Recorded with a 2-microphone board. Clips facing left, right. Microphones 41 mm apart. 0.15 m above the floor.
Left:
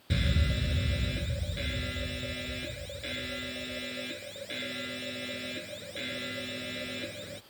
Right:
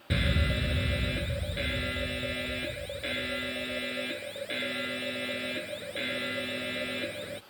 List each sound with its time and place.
0.1 s an alarm: 20° right (ahead or behind)